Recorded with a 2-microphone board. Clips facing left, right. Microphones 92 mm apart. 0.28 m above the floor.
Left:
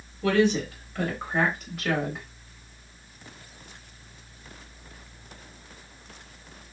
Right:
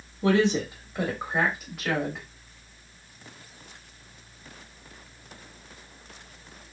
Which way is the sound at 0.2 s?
25° right (ahead or behind).